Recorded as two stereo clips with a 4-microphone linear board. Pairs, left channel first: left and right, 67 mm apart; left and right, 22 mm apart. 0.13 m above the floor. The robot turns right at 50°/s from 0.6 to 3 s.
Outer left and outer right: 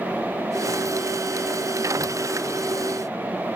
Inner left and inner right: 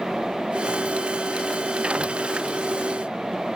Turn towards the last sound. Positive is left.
No sound to turn to.